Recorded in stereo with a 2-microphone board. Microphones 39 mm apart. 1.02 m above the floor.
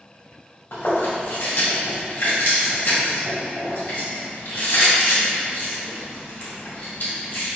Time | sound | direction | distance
0.7 | chewing | 65° left (ahead or behind) | 1.9 m